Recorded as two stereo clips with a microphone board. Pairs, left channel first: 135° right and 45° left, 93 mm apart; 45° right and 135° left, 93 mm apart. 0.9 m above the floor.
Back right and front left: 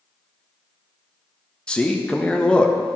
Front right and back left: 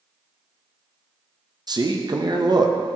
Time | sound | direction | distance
1.7 | a man speaking | 150° left | 0.6 m